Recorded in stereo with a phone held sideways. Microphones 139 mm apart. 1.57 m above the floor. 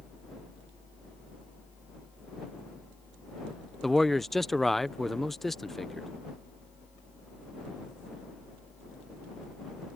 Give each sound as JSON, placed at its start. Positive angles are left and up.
{"t": 3.8, "sound": "a man speaking", "side_deg": 0}